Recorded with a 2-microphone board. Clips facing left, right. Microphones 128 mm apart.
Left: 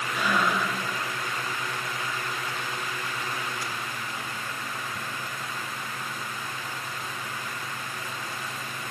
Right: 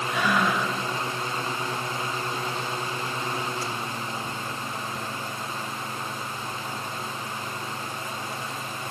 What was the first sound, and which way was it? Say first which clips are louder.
Breathing: right 1 dB; 75° right (ahead or behind).